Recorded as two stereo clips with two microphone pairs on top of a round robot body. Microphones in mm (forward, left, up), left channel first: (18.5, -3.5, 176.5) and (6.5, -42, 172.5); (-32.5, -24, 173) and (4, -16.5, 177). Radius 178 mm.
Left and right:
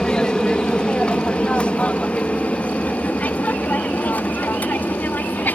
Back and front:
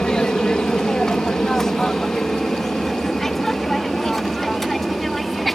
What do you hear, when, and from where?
0.0 s an aircraft: 140° left; by 5.6 s 110° left